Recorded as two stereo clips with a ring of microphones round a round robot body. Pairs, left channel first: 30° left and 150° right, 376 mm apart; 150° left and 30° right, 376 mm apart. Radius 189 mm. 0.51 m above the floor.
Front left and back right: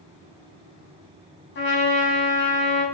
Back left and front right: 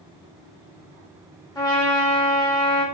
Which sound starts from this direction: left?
A trumpet, at 1.6 s.